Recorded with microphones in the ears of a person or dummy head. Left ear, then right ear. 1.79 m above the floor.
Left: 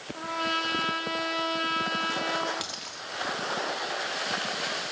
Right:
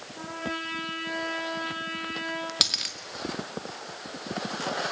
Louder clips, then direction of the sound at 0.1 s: Left 5 dB; 75° left (ahead or behind).